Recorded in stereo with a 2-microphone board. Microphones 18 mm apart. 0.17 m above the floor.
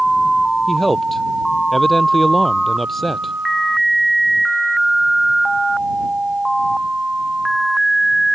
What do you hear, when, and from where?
0.7 s a man speaking: 15° left (ahead or behind)